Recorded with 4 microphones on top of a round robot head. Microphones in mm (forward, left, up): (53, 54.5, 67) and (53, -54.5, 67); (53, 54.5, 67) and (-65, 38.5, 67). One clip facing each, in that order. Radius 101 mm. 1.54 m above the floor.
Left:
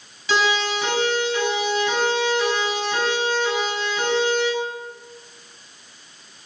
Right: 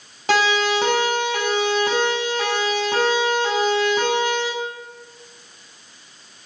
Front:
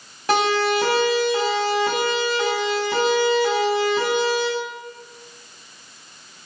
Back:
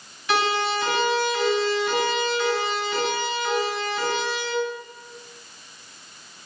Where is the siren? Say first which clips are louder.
Right 3 dB, front 4 dB; 50° right, 8.5 m.